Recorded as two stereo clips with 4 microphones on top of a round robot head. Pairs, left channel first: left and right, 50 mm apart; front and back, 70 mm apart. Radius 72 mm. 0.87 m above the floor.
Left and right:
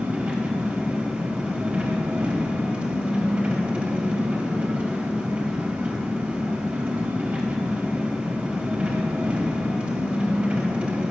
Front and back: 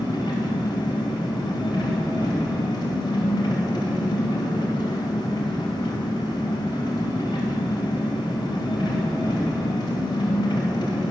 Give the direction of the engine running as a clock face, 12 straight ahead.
1 o'clock.